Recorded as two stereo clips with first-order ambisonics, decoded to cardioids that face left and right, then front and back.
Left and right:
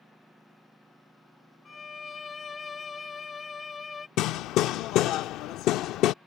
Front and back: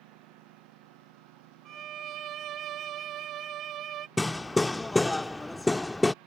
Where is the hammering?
80° left.